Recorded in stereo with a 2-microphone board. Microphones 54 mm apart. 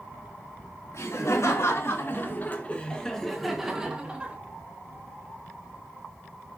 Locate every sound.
0.9 s laughter: 70° left (ahead or behind), 3 m; by 4.3 s 25° right (ahead or behind), 2.5 m